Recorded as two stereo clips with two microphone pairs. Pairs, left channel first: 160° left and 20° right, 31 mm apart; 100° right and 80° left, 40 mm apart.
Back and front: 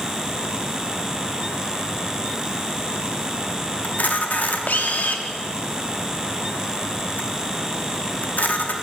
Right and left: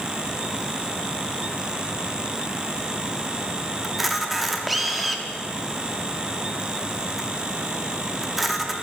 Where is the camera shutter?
165° left, 0.6 m.